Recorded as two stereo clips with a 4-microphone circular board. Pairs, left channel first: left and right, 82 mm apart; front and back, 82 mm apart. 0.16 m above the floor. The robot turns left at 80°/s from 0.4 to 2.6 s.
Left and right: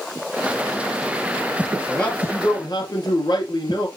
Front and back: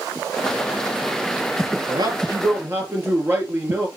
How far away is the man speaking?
About 3 m.